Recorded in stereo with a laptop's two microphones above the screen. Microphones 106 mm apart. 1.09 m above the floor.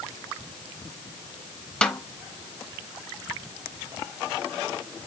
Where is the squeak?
I don't hear a squeak.